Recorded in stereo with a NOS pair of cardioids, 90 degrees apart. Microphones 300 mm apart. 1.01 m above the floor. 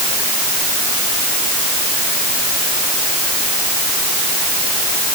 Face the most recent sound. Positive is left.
No sound to turn to.